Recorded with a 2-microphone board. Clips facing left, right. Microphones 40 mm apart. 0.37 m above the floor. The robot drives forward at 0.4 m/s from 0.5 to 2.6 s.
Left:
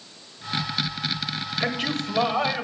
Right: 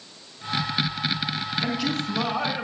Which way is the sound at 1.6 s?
50° left (ahead or behind).